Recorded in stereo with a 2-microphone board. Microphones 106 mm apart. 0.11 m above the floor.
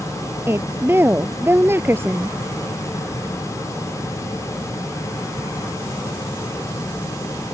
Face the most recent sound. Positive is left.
turn(degrees=-20)  # may be behind; listen again after turning